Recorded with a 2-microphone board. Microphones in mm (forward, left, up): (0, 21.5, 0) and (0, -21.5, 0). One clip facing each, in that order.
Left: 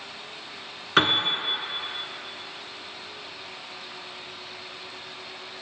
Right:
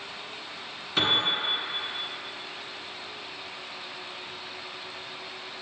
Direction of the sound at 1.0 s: 65° left (ahead or behind).